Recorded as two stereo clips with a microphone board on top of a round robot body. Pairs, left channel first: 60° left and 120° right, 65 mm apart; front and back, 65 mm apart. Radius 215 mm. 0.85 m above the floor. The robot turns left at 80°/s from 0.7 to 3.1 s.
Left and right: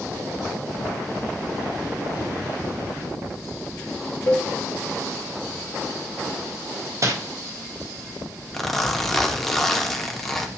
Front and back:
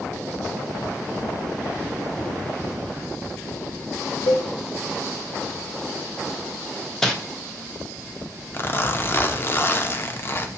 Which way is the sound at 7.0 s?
80° right.